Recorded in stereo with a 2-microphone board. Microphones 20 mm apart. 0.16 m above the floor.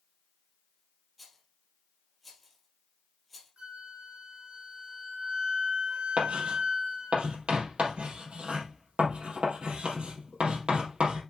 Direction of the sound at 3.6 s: 60° right (ahead or behind).